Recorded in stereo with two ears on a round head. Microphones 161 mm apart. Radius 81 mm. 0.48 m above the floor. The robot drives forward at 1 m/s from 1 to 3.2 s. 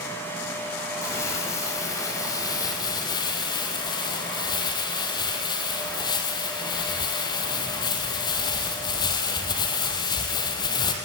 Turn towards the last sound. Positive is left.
turn(degrees=25)  # may be behind; listen again after turning